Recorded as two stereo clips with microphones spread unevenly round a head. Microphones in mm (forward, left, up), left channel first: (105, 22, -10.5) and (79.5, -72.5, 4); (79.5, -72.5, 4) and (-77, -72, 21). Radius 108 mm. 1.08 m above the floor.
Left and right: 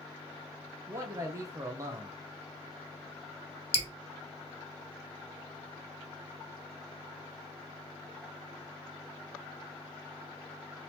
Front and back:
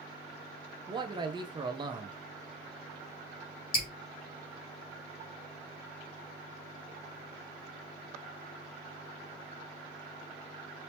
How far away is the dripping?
About 1.5 m.